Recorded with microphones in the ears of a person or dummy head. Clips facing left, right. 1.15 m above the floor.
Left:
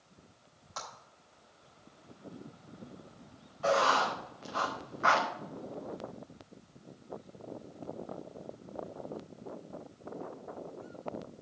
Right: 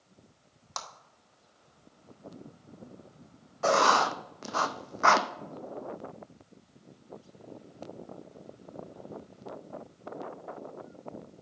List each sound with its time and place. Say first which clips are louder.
0.8 s a clap: right 2 dB; 80° right, 1.8 m
3.6 s writing: right 3 dB; 55° right (ahead or behind), 0.6 m